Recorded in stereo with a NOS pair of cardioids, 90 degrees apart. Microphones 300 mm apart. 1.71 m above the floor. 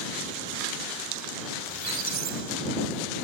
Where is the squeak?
70° right.